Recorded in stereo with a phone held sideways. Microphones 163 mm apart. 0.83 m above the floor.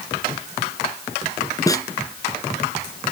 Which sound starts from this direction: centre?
A snare drum, at 1.7 s.